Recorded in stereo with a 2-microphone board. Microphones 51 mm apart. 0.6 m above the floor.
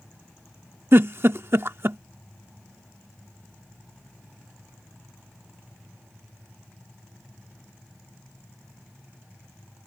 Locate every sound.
0.9 s a giggle: 55° right (ahead or behind)